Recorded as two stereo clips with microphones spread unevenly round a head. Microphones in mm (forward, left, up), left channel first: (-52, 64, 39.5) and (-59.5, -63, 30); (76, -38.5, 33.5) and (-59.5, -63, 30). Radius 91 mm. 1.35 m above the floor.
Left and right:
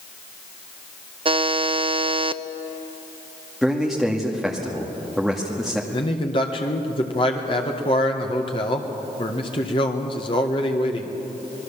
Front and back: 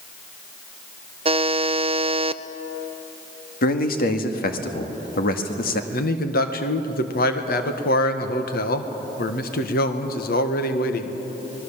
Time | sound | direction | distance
1.2 | a buzzer | 130° right | 0.7 m
3.6 | a man speaking | 5° right | 1.9 m
5.9 | a man speaking | 30° left | 1.6 m